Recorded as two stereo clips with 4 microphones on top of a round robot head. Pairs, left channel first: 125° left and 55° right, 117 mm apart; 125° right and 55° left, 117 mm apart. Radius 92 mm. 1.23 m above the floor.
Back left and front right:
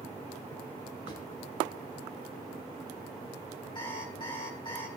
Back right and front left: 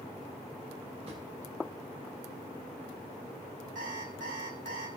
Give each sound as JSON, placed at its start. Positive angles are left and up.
{"t": 1.1, "sound": "a drawer", "azimuth_deg": 90, "distance_m": 6.5}
{"t": 3.8, "sound": "an alarm clock", "azimuth_deg": 70, "distance_m": 4.5}